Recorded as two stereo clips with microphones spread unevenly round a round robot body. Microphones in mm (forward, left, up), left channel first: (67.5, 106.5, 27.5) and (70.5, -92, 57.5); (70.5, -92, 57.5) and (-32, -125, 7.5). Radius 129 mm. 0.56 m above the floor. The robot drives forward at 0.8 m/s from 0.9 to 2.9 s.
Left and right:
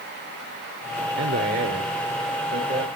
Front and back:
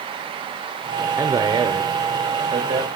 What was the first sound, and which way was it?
A man speaking, 125° right.